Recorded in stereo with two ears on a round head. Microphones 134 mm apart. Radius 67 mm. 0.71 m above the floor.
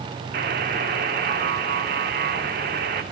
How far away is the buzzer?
About 2 m.